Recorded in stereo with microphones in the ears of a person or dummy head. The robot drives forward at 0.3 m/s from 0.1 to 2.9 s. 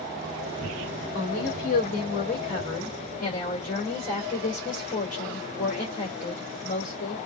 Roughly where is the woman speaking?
Left.